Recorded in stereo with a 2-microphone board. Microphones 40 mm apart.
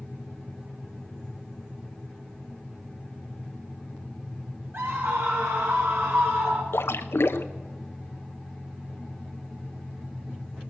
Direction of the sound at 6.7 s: 85° left.